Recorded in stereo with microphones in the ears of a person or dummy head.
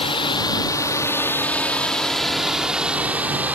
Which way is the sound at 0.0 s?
35° left (ahead or behind).